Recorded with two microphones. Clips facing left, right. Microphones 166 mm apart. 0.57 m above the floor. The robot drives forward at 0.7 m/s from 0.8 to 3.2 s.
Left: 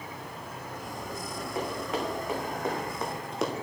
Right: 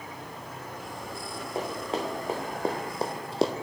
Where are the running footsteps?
30° right (ahead or behind), 3 m.